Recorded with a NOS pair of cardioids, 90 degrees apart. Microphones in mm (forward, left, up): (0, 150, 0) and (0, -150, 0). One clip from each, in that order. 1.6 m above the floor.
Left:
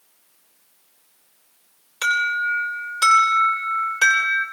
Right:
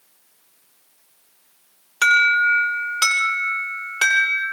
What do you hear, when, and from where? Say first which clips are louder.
2.0 s an alarm: right 6 dB; 35° right, 8 m